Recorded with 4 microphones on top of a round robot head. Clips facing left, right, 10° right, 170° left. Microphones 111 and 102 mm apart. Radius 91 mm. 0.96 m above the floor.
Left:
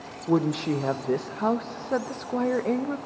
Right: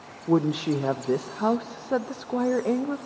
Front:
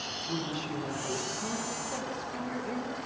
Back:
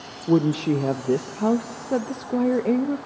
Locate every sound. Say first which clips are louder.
0.3 s a woman speaking: right 1 dB, back 16 dB; 175° right, 0.6 m